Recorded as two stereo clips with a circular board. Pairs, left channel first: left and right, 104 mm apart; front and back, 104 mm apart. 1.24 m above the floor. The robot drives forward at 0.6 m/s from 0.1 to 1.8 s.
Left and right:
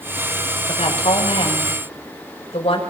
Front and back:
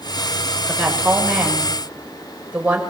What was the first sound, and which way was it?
A woman speaking, 95° left.